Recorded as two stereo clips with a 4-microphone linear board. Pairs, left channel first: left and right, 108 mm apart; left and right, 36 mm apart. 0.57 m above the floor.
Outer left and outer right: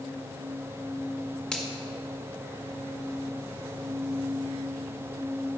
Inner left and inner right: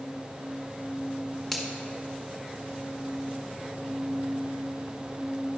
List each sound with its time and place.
1.5 s a finger snap: 5° left (ahead or behind), 1.6 m